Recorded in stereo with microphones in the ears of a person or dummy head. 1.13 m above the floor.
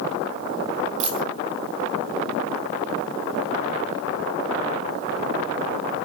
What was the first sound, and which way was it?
A dropped coin, 40° right (ahead or behind).